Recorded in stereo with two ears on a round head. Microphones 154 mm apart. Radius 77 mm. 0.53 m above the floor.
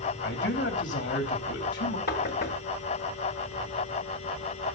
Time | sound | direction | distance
0.2 | a man speaking | 70° left (ahead or behind) | 3 m
2.1 | knocking | 60° left (ahead or behind) | 1.9 m